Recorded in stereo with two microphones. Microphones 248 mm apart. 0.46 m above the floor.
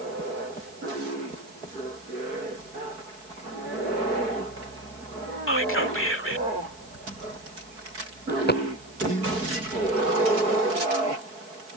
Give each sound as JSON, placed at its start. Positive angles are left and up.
{"t": 5.5, "sound": "whispering", "side_deg": 55}
{"t": 8.3, "sound": "a dropped coin", "side_deg": 40}